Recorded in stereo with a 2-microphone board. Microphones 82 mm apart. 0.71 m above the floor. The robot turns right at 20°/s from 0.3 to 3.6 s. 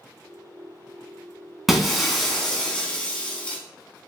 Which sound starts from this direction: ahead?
Breaking glass, at 1.7 s.